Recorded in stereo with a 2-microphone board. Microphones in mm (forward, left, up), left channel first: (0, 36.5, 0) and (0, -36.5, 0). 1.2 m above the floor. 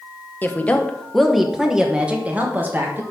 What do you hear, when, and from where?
0.4 s a woman speaking: 25° left (ahead or behind), 0.9 m; by 3.0 s 30° right (ahead or behind), 1.6 m